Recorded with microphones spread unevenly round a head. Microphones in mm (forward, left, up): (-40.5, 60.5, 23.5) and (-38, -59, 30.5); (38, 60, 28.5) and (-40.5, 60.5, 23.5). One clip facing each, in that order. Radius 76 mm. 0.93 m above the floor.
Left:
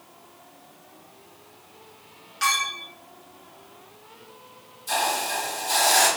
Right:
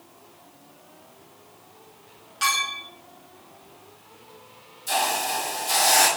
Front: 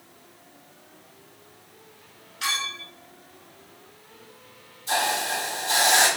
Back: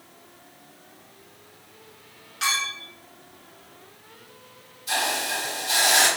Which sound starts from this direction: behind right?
A clink, at 2.4 s.